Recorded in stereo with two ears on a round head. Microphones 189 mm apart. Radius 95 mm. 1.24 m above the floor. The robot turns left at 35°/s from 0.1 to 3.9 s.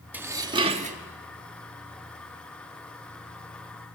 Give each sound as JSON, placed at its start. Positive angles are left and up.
{"t": 0.1, "sound": "dishes clattering", "side_deg": -10, "distance_m": 1.5}